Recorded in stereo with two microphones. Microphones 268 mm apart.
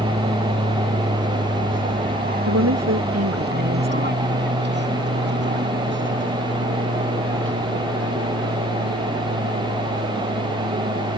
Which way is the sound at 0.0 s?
20° right (ahead or behind).